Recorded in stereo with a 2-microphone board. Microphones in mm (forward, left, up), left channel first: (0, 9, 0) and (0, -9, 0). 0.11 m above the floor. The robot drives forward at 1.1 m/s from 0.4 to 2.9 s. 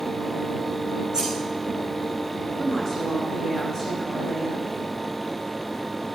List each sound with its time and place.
1.1 s scissors: 45° right (ahead or behind), 7.5 m
2.6 s a woman speaking: 20° left (ahead or behind), 7.5 m